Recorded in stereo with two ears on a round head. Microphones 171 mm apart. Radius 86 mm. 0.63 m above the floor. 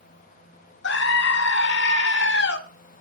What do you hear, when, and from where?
0.8 s a scream: 65° left (ahead or behind), 1.5 m